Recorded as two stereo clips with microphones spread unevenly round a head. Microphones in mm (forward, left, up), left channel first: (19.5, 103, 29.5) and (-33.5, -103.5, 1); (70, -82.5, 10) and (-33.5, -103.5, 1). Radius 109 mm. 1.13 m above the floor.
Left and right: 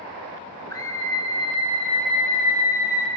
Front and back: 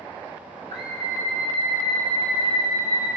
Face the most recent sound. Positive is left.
turn(degrees=120)